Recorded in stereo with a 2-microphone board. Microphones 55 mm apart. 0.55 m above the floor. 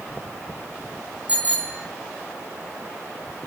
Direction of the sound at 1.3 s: 25° right (ahead or behind).